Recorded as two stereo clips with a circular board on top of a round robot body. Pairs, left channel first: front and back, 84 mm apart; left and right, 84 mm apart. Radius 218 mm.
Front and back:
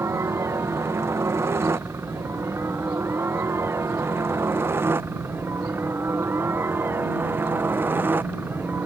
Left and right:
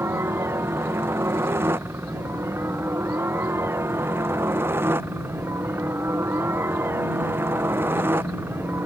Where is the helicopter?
140° right; by 8.9 s 135° right.